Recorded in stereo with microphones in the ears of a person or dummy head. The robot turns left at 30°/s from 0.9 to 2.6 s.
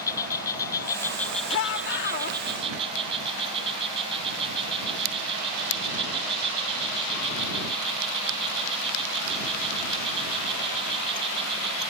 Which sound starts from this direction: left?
A shout, at 1.5 s.